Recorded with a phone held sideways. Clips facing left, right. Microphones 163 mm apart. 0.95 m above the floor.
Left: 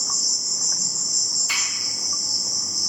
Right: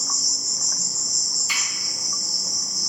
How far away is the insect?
About 1.2 m.